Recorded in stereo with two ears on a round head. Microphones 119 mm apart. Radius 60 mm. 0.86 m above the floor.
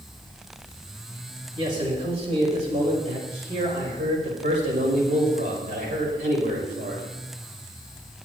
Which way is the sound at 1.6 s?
45° right (ahead or behind).